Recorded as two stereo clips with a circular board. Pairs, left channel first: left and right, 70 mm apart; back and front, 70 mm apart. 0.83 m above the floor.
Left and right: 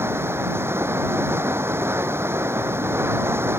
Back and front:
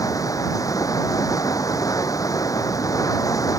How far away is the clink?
I don't hear a clink.